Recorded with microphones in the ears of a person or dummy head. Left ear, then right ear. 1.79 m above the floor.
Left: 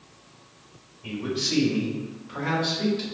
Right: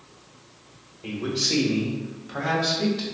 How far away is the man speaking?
About 1.4 m.